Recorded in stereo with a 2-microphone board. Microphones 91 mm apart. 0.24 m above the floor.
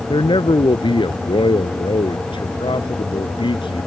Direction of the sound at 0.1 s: 65° left (ahead or behind).